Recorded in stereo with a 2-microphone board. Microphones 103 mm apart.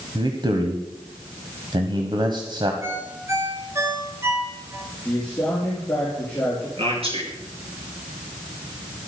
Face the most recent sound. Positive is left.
turn(degrees=-70)  # may be behind; listen again after turning